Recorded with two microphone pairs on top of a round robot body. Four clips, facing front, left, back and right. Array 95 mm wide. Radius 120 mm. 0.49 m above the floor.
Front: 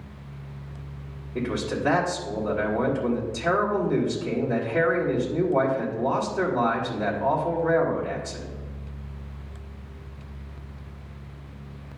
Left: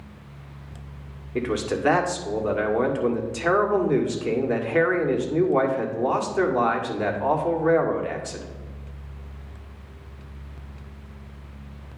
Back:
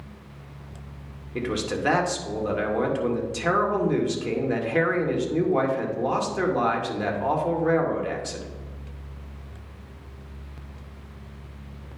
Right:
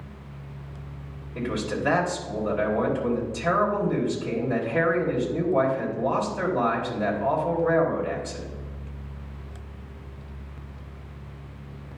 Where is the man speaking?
115° left, 1.9 m.